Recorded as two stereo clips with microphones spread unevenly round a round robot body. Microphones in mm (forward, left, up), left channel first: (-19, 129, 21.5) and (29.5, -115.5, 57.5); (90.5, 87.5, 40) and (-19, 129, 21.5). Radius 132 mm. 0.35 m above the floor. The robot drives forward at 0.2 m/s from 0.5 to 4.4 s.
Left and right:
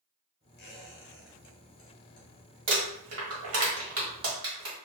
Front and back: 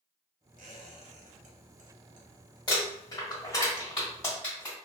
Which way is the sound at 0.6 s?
155° left.